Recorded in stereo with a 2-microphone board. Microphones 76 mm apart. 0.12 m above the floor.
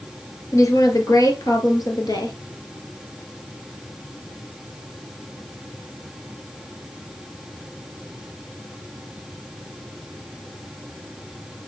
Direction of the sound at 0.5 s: 45° left (ahead or behind).